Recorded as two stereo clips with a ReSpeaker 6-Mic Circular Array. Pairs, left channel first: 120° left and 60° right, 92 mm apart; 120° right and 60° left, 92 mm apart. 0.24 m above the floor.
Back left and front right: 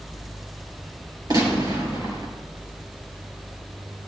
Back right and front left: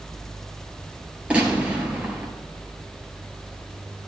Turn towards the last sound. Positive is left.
turn(degrees=-15)